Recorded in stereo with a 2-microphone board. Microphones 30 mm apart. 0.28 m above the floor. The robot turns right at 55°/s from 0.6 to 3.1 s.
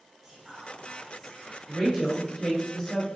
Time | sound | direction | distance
0.2 | whispering | 40° right | 1.9 m
1.7 | a woman speaking | 10° right (ahead or behind) | 0.9 m